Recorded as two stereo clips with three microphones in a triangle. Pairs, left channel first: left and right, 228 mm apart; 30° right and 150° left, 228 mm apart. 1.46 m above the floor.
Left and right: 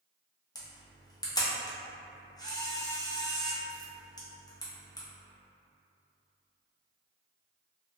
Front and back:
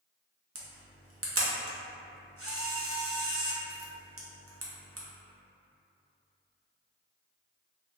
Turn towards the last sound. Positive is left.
turn(degrees=160)